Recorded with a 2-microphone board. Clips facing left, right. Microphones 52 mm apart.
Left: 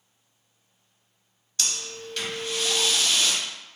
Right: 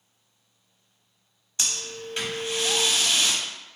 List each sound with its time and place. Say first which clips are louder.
1.6 s breathing: even; 25° right (ahead or behind), 0.7 m